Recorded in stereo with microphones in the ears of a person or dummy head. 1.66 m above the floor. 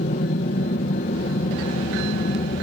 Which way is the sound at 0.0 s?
40° left (ahead or behind).